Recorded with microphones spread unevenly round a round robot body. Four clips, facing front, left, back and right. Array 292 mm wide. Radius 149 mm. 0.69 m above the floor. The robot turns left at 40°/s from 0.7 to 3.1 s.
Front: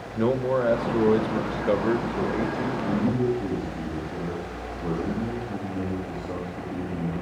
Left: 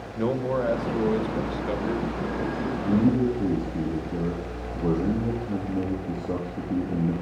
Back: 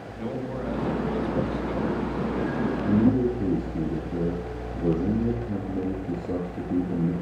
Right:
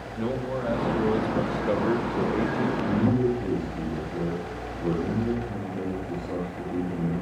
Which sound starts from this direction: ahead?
A man speaking, at 0.1 s.